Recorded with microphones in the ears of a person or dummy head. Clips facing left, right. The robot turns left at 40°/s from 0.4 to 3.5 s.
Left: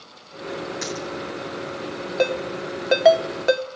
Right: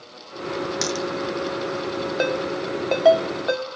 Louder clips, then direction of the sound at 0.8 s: Right 4 dB; 75° right (ahead or behind).